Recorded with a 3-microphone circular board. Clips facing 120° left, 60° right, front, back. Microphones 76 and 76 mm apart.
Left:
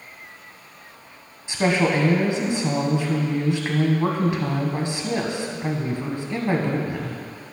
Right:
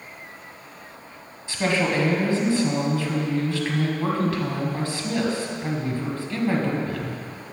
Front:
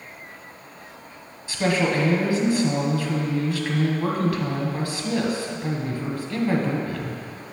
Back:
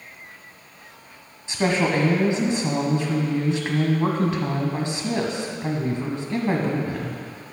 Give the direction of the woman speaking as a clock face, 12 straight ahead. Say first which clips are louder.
Left 3 dB, back 1 dB; 7 o'clock.